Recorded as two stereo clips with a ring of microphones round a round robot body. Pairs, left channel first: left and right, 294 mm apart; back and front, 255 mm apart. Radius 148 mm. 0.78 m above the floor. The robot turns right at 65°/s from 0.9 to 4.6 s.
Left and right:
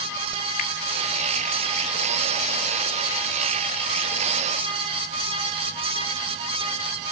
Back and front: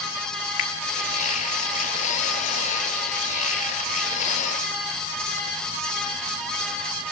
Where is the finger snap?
150° left, 2 m.